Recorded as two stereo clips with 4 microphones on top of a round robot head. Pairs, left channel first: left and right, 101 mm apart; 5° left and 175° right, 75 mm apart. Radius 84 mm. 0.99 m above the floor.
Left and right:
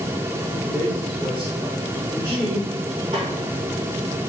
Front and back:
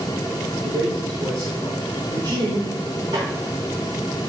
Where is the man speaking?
160° right, 3.5 m.